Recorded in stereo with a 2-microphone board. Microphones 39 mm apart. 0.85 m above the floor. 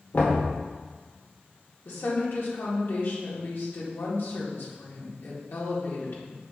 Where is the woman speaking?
65° left (ahead or behind), 2 m.